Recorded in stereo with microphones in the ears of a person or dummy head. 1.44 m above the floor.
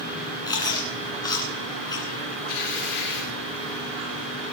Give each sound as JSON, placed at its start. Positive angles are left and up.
{"t": 0.5, "sound": "chewing", "side_deg": 25, "distance_m": 2.5}
{"t": 2.5, "sound": "tearing paper", "side_deg": 80, "distance_m": 6.5}